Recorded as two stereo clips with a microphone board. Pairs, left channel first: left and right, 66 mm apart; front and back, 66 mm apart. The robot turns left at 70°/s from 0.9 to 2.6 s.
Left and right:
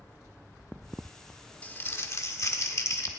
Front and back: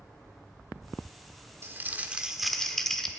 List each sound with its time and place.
1.6 s crumpling: 150° left, 1.2 m; by 3.1 s 80° left, 1.2 m